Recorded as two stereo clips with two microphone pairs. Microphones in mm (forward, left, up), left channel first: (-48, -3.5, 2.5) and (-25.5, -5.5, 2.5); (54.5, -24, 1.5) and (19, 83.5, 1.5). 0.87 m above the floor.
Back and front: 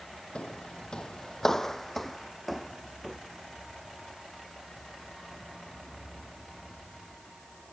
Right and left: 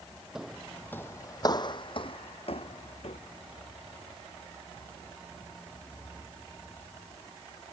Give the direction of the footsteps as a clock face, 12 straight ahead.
6 o'clock.